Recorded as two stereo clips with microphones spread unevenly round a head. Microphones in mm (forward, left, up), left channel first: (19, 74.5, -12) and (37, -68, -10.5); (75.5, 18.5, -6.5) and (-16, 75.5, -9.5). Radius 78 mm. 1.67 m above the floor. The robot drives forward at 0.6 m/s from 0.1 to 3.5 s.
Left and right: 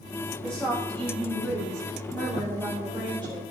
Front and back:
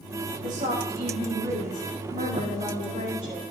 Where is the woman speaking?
Straight behind, 1.7 m.